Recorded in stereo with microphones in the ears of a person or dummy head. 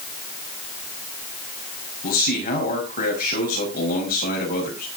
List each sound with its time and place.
2.0 s a man speaking: 50° left (ahead or behind), 6 m